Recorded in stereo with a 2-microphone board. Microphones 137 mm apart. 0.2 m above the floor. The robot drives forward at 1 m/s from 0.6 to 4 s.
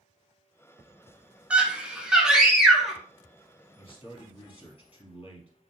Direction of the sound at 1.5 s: 10° right (ahead or behind).